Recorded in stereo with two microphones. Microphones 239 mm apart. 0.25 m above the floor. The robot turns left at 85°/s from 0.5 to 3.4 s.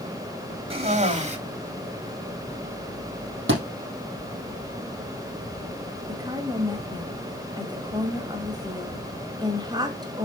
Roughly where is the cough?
Ahead right.